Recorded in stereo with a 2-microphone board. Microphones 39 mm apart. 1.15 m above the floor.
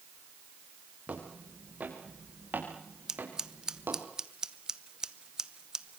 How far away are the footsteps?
About 6 m.